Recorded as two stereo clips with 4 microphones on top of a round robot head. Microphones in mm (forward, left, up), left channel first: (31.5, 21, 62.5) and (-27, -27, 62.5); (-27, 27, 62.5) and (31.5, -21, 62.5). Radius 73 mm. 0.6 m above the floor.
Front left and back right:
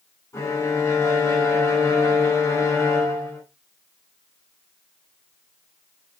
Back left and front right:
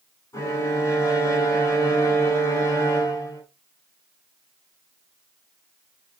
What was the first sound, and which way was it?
A violin, 90° left.